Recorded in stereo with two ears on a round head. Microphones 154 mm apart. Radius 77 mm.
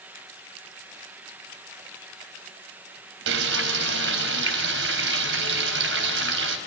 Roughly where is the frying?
Right.